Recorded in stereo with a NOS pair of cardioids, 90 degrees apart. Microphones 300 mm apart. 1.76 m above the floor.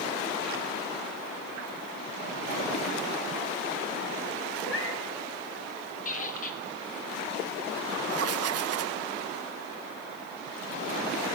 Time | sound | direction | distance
4.6 | a cat meowing | 45° left | 6.5 m
6.0 | a squeak | 25° left | 3.5 m
8.1 | writing | 55° right | 1.1 m